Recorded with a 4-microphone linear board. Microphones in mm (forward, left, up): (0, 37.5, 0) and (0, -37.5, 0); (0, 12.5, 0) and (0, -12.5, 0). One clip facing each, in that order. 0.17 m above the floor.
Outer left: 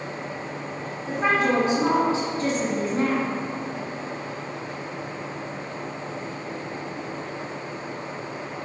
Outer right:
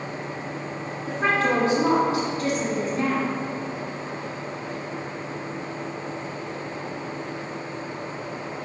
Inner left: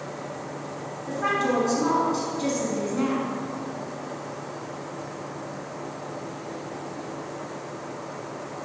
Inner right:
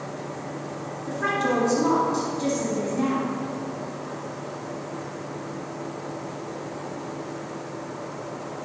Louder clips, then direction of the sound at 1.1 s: Outer left 1 dB, even; 5° left (ahead or behind).